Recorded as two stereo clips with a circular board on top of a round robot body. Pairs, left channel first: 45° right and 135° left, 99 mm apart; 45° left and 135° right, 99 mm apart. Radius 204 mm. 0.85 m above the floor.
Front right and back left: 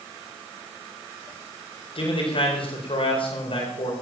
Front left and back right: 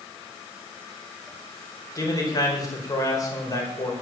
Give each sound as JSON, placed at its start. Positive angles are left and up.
{"t": 1.9, "sound": "a man speaking", "azimuth_deg": -10, "distance_m": 5.0}